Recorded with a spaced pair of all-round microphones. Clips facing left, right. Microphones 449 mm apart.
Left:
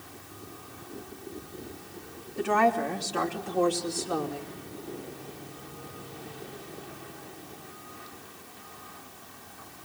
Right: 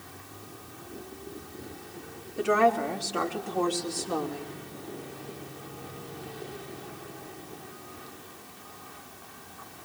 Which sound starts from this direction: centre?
A woman speaking, at 2.4 s.